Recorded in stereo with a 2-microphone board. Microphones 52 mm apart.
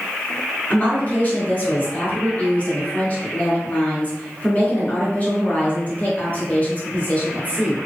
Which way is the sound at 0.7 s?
30° left (ahead or behind).